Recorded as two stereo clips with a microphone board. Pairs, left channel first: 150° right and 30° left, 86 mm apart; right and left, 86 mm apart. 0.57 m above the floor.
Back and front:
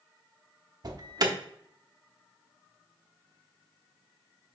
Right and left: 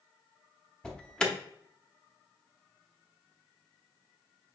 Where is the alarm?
10° right, 1.0 m.